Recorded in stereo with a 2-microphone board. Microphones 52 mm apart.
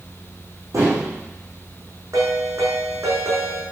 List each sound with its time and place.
0.7 s dishes clattering: 75° right (ahead or behind), 6.5 m
2.1 s a ringtone: 70° right (ahead or behind), 6 m